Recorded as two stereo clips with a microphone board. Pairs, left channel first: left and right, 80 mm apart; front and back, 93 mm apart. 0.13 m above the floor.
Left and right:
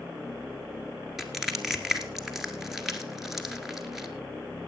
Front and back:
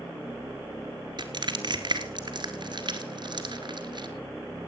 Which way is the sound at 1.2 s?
175° right.